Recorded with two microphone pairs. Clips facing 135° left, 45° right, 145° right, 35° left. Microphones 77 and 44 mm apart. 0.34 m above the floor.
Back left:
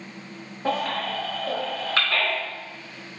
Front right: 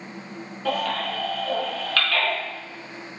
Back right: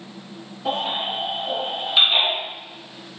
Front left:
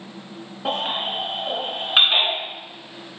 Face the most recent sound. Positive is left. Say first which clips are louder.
# even, even
turn(degrees=70)